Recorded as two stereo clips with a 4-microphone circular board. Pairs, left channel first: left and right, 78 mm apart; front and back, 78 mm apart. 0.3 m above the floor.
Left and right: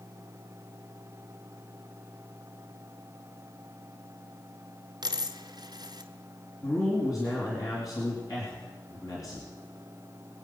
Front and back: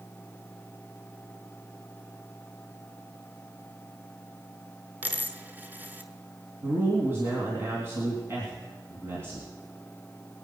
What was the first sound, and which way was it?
A dropped coin, 115° right.